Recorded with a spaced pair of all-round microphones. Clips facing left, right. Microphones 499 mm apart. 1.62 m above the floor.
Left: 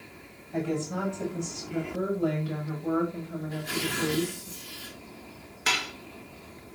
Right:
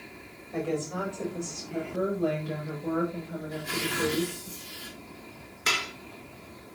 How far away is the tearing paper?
About 9.5 m.